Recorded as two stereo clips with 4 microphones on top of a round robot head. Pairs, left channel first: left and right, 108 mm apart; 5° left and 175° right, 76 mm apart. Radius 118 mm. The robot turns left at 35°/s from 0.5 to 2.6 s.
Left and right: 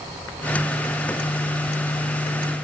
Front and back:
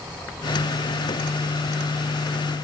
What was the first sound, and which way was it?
Only background noise.